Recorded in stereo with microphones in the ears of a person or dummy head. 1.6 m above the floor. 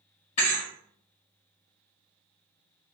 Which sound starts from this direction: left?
A thud, at 0.4 s.